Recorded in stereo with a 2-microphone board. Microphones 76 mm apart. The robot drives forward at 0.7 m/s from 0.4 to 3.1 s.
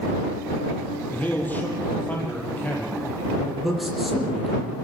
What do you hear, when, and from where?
1.1 s a man speaking: 25° left (ahead or behind), 6.5 m; by 3.5 s 20° left (ahead or behind), 7.5 m
3.6 s a man speaking: centre (ahead or behind), 6.5 m